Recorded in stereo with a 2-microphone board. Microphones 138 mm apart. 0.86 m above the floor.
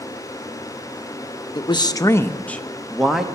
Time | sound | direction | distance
1.6 | a man speaking | 40° left (ahead or behind) | 0.6 m